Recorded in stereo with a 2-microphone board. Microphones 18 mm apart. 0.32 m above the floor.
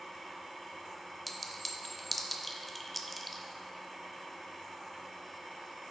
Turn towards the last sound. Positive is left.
turn(degrees=5)  # may be behind; listen again after turning